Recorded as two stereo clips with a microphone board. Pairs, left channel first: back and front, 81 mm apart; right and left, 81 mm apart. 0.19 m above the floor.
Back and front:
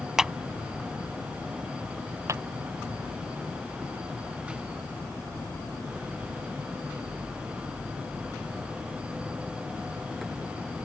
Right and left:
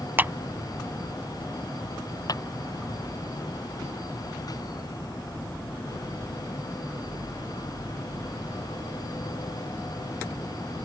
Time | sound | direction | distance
0.2 | a clap | 75° left | ?
2.3 | a clap | 50° right | ?